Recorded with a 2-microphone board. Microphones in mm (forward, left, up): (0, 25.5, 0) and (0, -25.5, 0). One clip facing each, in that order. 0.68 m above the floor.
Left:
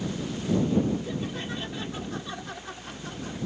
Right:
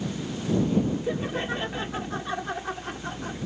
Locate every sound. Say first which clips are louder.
1.1 s laughter: right 4 dB; 40° right (ahead or behind)